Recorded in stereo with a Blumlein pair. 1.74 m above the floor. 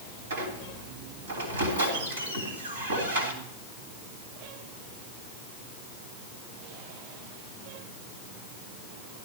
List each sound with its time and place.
0.3 s a squeak: 70° right, 3 m